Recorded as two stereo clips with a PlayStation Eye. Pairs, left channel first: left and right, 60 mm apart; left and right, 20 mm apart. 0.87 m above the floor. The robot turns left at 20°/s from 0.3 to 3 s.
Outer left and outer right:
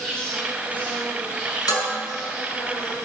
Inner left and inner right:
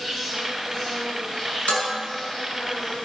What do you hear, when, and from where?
0.0 s an insect: 165° left, 7.5 m; by 3.1 s 110° left, 7.5 m
1.7 s dishes clattering: 85° left, 6.5 m; by 1.9 s 90° left, 6.5 m